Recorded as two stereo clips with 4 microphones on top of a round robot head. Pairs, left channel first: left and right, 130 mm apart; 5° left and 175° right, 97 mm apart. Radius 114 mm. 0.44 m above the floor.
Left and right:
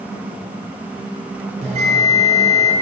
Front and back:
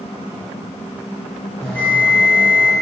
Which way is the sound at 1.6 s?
75° right.